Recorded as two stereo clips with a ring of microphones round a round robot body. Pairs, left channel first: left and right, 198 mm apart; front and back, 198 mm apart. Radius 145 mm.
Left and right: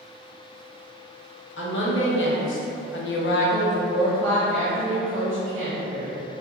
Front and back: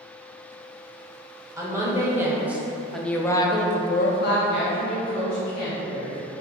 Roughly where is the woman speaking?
Left.